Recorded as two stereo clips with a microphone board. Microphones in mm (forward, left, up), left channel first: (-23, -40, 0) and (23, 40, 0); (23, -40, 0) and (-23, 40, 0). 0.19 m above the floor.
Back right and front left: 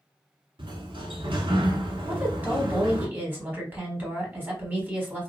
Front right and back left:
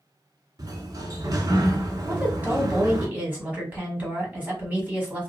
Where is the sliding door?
75° left, 0.6 m.